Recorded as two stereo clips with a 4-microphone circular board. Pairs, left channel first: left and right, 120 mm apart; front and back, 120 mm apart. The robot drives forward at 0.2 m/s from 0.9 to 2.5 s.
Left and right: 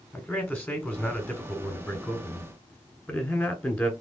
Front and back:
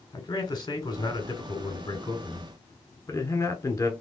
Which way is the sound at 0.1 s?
25° left.